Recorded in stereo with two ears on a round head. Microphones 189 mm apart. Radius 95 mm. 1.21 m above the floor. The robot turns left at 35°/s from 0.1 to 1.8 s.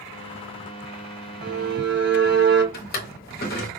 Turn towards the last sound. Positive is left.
turn(degrees=45)  # may be behind; listen again after turning